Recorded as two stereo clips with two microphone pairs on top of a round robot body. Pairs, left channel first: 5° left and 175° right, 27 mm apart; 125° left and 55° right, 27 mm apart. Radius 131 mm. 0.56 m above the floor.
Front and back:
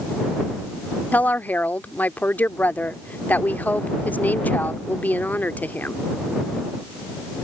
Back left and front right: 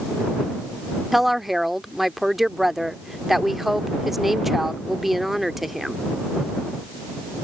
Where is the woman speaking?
25° left.